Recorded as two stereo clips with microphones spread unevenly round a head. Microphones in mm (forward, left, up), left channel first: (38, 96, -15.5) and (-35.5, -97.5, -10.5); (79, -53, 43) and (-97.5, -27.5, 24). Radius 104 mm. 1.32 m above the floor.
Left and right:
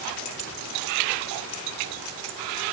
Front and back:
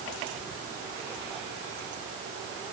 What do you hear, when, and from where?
Only background noise.